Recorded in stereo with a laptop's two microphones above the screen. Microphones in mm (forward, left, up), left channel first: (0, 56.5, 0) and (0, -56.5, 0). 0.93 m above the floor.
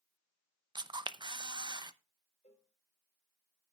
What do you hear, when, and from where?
0.8 s a camera shutter: 40° right (ahead or behind), 0.6 m
2.4 s a cowbell: 70° left (ahead or behind), 2.5 m